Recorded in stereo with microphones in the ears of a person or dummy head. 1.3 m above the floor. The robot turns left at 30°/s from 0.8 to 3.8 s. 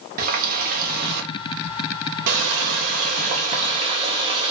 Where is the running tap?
60° right, 0.7 m; by 4.5 s 150° right, 0.7 m.